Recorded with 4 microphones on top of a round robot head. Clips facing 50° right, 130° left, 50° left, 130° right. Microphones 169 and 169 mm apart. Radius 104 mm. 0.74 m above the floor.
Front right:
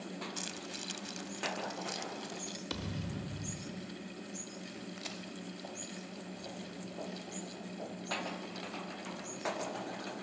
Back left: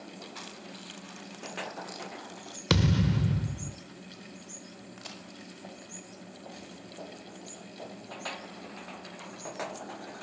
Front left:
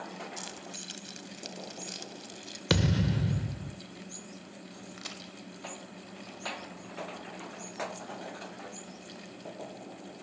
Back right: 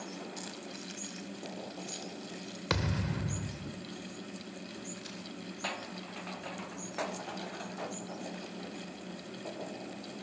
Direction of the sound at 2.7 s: 110° left.